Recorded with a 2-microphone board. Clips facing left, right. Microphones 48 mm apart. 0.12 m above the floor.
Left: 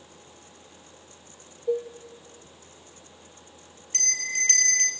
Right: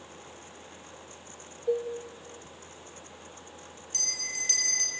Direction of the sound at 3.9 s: 40° left (ahead or behind).